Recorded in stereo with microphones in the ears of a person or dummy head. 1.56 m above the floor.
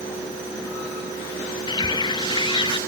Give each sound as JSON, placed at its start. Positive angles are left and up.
{"t": 1.7, "sound": "a bird", "side_deg": 25, "distance_m": 1.1}